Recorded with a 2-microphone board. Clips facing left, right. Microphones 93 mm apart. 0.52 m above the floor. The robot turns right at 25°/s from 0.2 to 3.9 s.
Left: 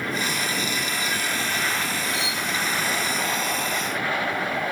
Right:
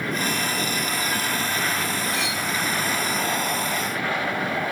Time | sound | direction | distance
2.1 | cutlery clinking | 60° right (ahead or behind) | 0.8 m